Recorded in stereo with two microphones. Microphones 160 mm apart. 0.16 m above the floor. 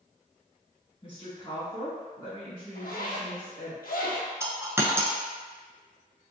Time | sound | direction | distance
1.0 | a woman speaking | 35° left (ahead or behind) | 1.4 m
2.8 | a zipper | 80° left | 1.0 m
4.4 | a dropped coin | 20° right (ahead or behind) | 0.5 m